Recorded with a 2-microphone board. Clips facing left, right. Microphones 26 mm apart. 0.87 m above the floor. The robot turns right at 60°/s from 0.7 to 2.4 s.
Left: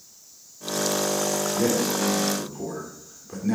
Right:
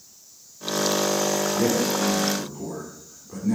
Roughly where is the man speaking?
Ahead.